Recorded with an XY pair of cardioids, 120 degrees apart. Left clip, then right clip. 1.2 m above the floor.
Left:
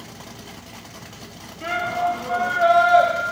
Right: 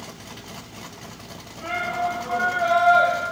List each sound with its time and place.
1.6 s a shout: 30° left, 2.5 m